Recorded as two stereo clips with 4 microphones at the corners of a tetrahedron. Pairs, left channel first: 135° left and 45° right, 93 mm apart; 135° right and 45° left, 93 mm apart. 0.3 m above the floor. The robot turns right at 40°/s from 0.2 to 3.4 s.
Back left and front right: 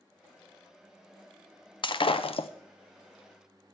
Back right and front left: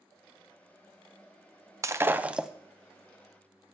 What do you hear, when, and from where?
1.8 s breaking glass: 105° left, 0.5 m; by 2.5 s 130° left, 0.5 m